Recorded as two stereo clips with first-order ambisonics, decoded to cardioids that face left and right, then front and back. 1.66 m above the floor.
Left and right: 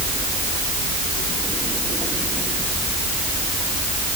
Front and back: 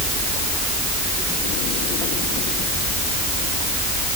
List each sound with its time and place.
Only background noise.